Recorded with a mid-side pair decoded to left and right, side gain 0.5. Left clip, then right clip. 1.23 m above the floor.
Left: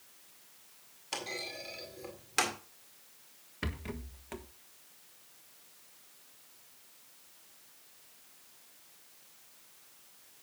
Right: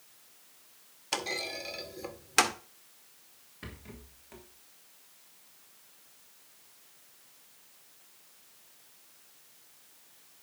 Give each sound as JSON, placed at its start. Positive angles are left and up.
{"t": 1.1, "sound": "a clunk", "azimuth_deg": -40, "distance_m": 1.9}
{"t": 3.6, "sound": "a rattle", "azimuth_deg": 55, "distance_m": 1.3}